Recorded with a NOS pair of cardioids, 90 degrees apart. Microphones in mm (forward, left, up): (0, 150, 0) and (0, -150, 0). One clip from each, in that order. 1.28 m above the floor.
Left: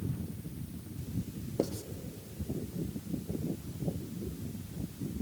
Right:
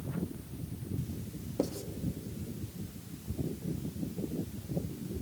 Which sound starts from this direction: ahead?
Writing, at 1.6 s.